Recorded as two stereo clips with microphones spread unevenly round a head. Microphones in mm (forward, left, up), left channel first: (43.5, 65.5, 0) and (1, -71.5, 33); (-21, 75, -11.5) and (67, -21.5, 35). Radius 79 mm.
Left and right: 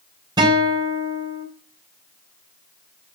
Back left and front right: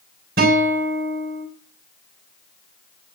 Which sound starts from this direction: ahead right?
A guitar, at 0.4 s.